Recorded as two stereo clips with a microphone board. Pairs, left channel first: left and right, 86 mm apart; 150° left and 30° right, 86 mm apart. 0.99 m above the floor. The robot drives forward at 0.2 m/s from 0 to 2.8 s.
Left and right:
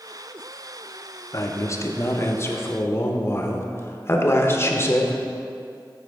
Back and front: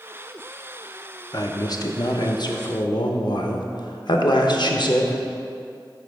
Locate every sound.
1.3 s a man speaking: 125° left, 0.6 m; by 5.2 s 145° left, 0.8 m